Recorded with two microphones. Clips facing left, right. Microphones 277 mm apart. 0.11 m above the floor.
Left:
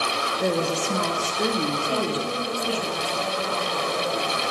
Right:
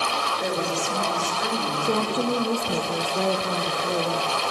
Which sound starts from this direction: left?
A woman speaking, at 0.4 s.